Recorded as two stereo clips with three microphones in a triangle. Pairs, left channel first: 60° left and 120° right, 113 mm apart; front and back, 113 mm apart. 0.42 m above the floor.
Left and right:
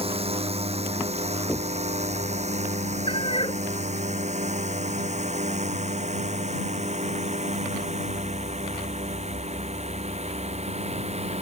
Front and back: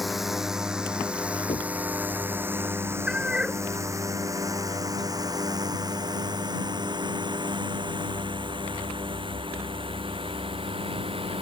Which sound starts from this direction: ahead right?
Knocking, at 1.5 s.